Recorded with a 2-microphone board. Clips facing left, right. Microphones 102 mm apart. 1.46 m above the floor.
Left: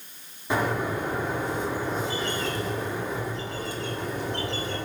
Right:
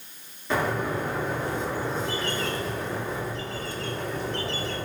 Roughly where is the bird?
Centre.